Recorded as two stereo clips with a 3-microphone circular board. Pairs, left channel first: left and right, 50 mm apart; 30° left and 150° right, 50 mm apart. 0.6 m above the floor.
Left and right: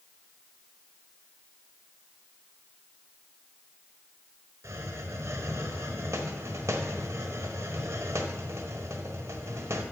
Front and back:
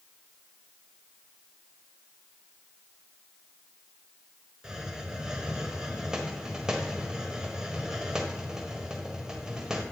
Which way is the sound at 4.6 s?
70° right.